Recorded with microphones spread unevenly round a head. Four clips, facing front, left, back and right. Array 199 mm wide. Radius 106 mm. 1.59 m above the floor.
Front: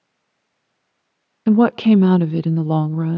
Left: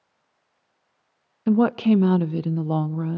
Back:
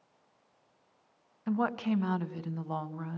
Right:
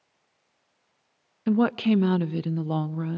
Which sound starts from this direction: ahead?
A woman speaking, at 1.5 s.